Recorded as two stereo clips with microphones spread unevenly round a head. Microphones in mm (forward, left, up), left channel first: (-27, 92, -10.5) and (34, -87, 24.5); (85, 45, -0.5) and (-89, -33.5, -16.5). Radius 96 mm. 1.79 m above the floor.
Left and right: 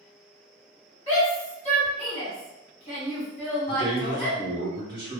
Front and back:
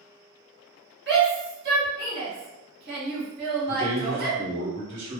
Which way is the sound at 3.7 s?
125° right.